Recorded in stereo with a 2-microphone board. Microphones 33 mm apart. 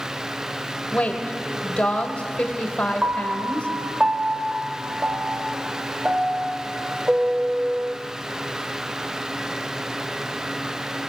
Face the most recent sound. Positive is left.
turn(degrees=-40)  # may be behind; listen again after turning